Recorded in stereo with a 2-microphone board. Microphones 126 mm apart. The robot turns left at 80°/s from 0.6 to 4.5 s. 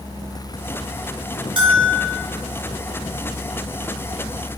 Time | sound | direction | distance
1.6 | a bell | 95° right | 0.9 m